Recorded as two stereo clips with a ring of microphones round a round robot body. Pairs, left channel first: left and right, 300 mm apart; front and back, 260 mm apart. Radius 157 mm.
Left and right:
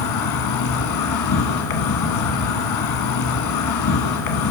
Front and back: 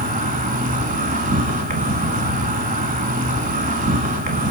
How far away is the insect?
About 0.8 m.